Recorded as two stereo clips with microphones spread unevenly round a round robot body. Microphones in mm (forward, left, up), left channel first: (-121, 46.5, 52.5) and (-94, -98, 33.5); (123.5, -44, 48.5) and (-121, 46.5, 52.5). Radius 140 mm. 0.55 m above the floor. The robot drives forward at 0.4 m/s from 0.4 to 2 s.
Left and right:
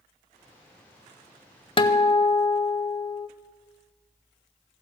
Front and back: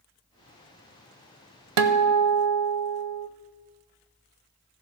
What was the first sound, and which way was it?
A guitar, 155° left.